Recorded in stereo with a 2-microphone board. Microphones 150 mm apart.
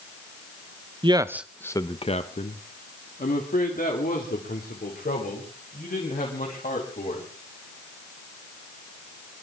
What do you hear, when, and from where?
1.0 s a man speaking: 35° right (ahead or behind), 0.8 m; by 7.3 s 85° left, 6 m